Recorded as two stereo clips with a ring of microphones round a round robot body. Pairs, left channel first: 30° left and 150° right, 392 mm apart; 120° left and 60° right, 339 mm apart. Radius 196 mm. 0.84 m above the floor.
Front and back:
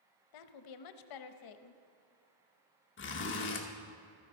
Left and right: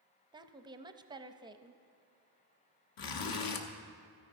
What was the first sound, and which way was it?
A woman speaking, 15° left.